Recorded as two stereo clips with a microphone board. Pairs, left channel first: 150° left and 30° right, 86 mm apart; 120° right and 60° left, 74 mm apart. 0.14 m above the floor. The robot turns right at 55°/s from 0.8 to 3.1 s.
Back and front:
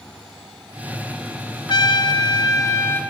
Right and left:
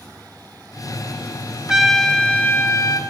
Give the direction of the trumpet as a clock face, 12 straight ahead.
7 o'clock.